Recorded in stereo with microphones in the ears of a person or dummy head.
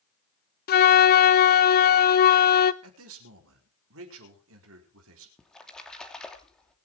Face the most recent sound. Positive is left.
turn(degrees=10)  # may be behind; listen again after turning